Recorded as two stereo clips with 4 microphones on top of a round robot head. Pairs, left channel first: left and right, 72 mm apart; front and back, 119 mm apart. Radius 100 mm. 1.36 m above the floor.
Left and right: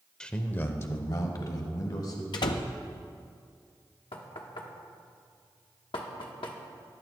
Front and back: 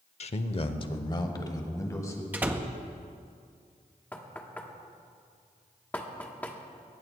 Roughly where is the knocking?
Left.